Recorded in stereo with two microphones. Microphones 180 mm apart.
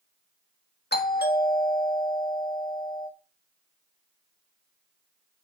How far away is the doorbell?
About 1.5 m.